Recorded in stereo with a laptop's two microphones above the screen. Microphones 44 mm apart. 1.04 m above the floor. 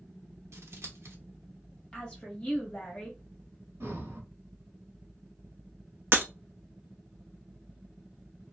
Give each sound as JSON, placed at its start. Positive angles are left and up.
{"t": 0.5, "sound": "scissors", "side_deg": -85, "distance_m": 0.7}
{"t": 1.9, "sound": "a woman speaking", "side_deg": 25, "distance_m": 1.1}
{"t": 3.8, "sound": "breathing", "side_deg": -75, "distance_m": 1.0}
{"t": 6.1, "sound": "breaking glass", "side_deg": -55, "distance_m": 0.5}